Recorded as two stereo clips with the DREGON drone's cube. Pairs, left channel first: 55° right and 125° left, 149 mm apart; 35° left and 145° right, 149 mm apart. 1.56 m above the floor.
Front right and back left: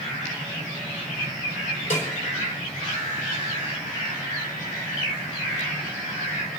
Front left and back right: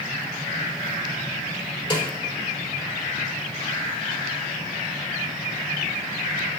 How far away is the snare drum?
About 4 m.